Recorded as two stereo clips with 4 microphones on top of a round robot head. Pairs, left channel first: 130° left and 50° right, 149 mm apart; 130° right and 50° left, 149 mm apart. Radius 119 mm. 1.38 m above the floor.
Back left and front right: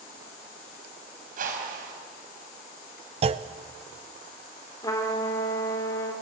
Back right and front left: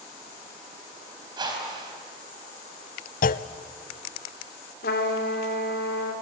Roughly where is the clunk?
Right.